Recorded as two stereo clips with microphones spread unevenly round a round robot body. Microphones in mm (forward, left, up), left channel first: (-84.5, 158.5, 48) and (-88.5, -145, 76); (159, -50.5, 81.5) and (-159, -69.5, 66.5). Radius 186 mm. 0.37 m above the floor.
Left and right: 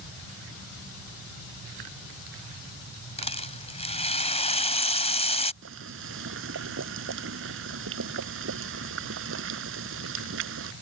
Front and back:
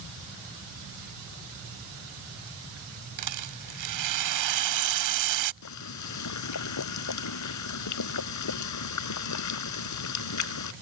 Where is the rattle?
160° left.